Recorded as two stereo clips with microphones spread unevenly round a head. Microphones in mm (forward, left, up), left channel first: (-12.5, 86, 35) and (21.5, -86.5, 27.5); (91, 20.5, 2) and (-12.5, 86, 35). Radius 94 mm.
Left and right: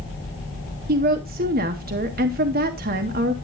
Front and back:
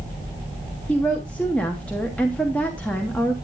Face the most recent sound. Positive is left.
turn(degrees=-105)